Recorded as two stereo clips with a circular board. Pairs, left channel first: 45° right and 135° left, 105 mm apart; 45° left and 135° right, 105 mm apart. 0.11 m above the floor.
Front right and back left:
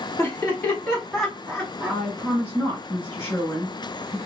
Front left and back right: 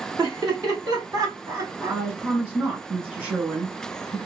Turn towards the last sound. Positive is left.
turn(degrees=-85)